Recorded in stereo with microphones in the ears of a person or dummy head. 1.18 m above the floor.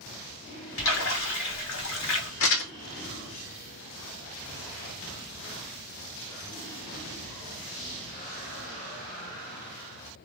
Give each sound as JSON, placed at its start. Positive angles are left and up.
{"t": 0.8, "sound": "a splash", "side_deg": 65, "distance_m": 1.5}
{"t": 2.4, "sound": "crumpling", "side_deg": 65, "distance_m": 1.1}